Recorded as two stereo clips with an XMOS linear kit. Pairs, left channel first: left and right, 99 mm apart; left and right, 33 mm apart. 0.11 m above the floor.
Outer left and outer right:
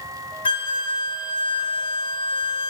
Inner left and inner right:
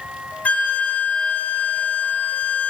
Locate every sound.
0.5 s a flute: 60° left (ahead or behind), 0.8 m